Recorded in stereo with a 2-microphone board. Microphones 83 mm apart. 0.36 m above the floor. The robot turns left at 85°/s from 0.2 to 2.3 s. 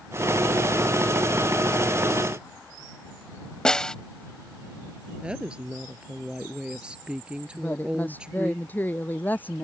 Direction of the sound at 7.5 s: 25° left (ahead or behind).